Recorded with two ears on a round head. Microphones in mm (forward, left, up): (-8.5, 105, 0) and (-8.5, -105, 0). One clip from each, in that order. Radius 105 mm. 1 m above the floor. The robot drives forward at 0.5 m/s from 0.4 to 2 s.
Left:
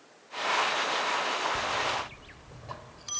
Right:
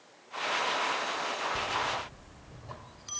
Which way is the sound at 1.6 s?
25° left (ahead or behind).